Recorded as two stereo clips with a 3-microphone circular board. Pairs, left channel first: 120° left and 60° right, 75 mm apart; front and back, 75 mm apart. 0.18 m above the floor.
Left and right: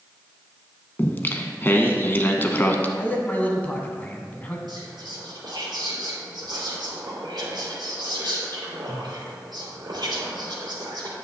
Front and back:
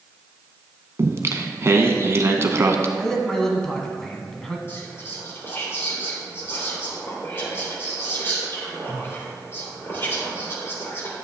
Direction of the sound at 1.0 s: 165° left.